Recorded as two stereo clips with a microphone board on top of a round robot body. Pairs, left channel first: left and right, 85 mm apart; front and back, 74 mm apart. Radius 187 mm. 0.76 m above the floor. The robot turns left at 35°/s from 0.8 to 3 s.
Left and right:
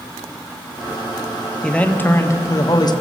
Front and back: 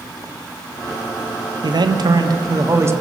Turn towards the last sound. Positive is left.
turn(degrees=125)